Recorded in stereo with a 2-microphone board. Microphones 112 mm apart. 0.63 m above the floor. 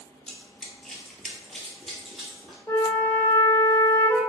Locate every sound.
0.3 s running footsteps: 5° left (ahead or behind), 0.8 m; by 2.6 s centre (ahead or behind), 1.2 m
2.7 s a flute: 25° left (ahead or behind), 0.6 m